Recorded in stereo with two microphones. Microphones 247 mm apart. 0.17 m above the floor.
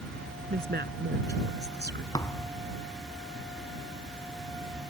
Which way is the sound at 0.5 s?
45° right (ahead or behind).